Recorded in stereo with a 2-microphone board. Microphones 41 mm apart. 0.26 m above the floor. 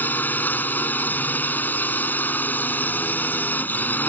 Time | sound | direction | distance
0.0 | a drone | 50° left (ahead or behind) | ?